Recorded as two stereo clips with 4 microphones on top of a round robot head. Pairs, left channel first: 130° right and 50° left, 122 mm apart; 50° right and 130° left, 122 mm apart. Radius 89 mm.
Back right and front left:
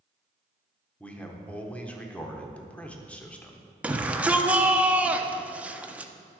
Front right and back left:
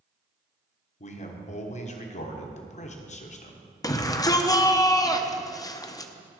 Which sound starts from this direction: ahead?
A shout, at 3.8 s.